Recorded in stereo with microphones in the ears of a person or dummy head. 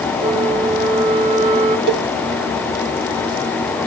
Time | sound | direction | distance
0.2 | a flute | 35° right (ahead or behind) | 1.7 m
1.9 | a cowbell | 60° right (ahead or behind) | 0.5 m